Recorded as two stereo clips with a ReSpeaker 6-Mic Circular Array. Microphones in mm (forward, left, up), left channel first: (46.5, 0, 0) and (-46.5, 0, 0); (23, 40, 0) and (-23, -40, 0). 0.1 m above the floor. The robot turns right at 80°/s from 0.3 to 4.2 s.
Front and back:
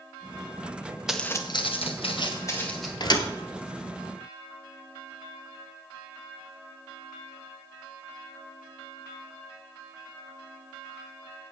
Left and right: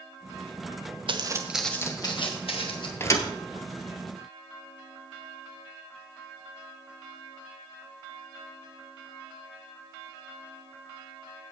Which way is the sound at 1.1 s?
95° right.